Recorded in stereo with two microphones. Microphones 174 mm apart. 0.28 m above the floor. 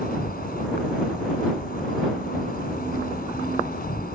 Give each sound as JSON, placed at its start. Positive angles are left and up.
{"t": 0.0, "sound": "an insect", "side_deg": 60}